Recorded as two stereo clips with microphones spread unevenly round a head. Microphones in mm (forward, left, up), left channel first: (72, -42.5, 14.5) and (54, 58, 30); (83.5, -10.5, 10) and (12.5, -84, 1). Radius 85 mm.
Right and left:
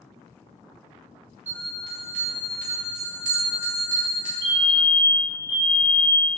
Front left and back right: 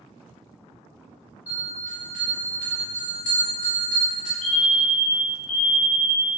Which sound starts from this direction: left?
A bell, at 1.5 s.